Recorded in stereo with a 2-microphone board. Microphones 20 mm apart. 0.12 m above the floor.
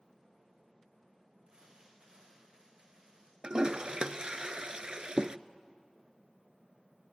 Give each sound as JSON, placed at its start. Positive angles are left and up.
{"t": 1.5, "sound": "crumpling", "side_deg": -50, "distance_m": 7.0}
{"t": 3.4, "sound": "a toilet flushing", "side_deg": -50, "distance_m": 0.5}